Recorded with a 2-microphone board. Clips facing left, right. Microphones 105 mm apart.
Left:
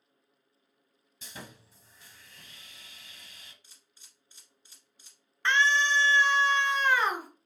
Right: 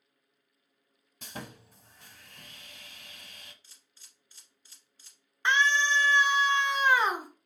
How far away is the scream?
About 0.9 m.